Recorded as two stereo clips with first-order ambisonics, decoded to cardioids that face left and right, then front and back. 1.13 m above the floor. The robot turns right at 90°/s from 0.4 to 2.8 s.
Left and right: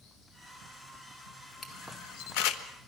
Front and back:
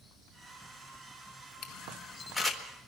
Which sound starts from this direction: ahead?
A camera shutter, at 1.6 s.